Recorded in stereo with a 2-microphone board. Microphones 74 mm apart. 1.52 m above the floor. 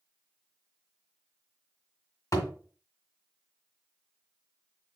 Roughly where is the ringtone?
I don't hear a ringtone.